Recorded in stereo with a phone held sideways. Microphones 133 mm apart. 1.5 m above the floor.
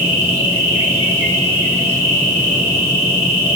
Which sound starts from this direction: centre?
An insect, at 0.0 s.